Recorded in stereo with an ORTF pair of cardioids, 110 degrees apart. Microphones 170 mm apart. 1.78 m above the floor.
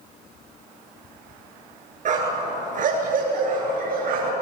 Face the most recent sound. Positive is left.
turn(degrees=-65)